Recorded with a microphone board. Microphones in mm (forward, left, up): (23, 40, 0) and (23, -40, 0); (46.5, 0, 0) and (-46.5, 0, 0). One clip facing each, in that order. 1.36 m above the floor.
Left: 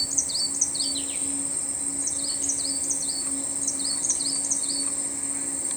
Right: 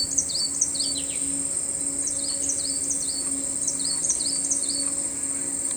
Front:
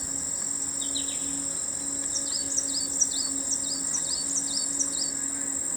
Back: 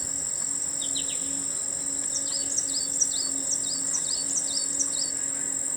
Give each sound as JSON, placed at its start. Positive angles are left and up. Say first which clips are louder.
{"t": 0.0, "sound": "an insect", "louder": "right 1 dB, front 2 dB", "azimuth_deg": 65, "distance_m": 2.5}